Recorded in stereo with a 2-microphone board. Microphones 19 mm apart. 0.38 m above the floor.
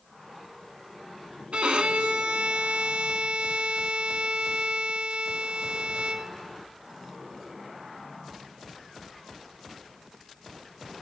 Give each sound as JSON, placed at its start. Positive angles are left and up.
{"t": 1.5, "sound": "a violin", "side_deg": -65, "distance_m": 0.6}